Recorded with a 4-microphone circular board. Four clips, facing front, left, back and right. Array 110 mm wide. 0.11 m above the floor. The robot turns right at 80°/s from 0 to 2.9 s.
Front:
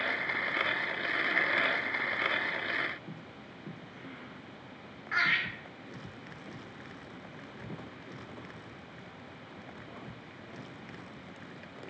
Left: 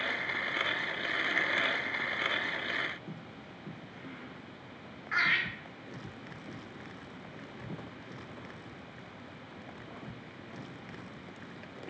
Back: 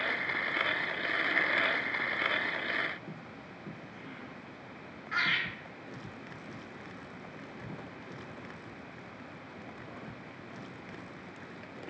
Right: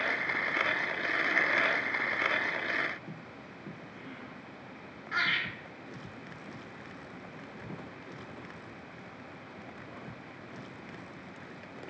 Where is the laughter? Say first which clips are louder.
Left 1 dB, front 2 dB; 55° left, 1.9 m.